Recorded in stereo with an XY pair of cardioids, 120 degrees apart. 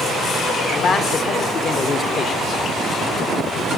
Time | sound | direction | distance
0.7 | a man speaking | 45° left | 1.0 m